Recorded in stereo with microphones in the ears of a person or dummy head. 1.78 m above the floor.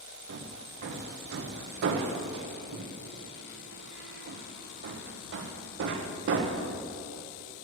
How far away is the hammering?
About 0.9 m.